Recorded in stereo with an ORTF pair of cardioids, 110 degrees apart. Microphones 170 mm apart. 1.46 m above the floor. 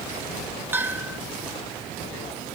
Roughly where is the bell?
Ahead.